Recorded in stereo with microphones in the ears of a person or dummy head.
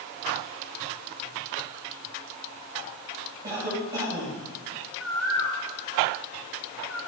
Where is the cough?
15° right (ahead or behind), 6 m.